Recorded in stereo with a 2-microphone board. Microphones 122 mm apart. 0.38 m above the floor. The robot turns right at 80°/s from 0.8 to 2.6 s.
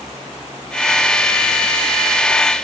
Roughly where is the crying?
I don't hear crying.